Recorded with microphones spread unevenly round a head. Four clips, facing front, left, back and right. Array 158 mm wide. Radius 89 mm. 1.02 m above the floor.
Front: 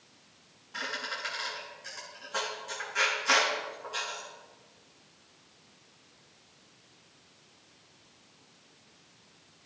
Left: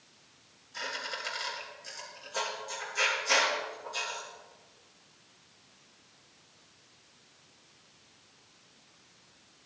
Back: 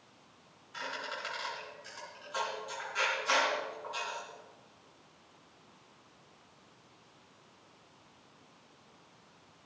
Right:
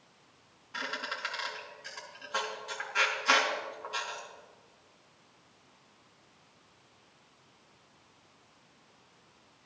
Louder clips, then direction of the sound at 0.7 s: Right 1 dB, front 2 dB; 70° right.